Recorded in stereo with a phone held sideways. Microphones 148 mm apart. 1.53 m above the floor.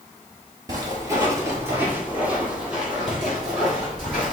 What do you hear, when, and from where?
0.7 s footsteps: 25° right (ahead or behind), 1.6 m; by 4.3 s centre (ahead or behind), 3 m